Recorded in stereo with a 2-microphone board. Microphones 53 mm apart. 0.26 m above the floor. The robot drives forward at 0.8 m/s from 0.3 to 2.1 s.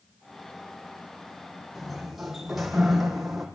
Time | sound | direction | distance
1.8 | a sliding door | centre (ahead or behind) | 6 m